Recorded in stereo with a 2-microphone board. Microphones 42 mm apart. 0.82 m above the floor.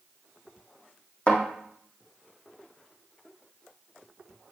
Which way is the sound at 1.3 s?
30° left (ahead or behind).